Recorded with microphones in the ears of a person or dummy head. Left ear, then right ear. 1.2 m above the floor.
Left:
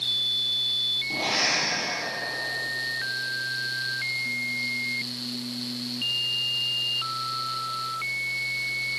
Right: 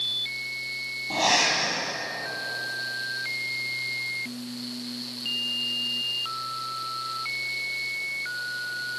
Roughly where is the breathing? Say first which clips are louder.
Right 8 dB; right.